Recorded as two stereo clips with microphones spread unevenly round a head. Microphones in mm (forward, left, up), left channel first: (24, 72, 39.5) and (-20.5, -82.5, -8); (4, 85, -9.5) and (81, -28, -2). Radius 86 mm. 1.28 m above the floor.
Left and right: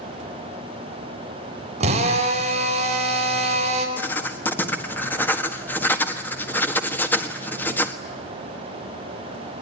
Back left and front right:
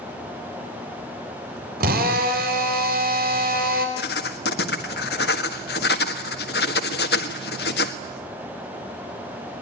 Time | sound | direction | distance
1.8 | a drill | 50° right | 4 m
4.0 | writing | 150° left | 1.5 m